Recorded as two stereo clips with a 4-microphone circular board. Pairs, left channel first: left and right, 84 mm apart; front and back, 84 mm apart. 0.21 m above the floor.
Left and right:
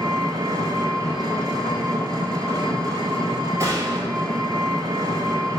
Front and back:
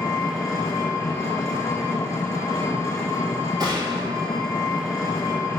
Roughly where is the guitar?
No guitar in this recording.